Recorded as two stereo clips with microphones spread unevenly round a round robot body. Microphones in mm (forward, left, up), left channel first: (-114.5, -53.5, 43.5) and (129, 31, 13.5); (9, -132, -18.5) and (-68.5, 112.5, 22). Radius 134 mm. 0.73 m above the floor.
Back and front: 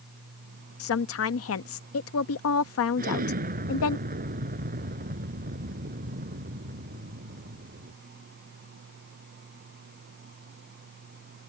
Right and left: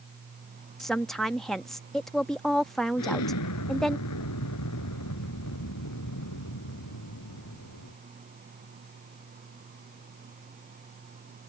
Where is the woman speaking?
150° right.